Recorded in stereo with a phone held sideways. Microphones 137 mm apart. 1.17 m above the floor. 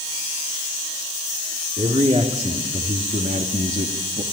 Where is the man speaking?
50° right (ahead or behind), 3.5 m; by 4.2 s 60° right (ahead or behind), 2 m.